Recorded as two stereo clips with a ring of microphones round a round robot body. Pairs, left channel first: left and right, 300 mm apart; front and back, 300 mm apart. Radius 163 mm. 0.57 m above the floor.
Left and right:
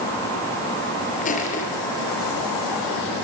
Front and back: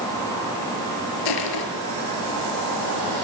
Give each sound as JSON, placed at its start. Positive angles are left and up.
{"t": 1.2, "sound": "crushing", "azimuth_deg": 20, "distance_m": 6.5}